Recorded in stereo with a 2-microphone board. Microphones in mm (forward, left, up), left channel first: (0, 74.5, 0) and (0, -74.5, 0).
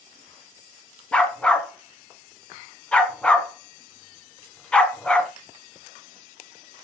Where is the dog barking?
5° left (ahead or behind), 1.3 m.